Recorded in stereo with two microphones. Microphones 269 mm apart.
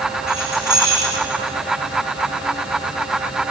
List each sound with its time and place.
0.3 s keys jangling: 40° right (ahead or behind), 7.5 m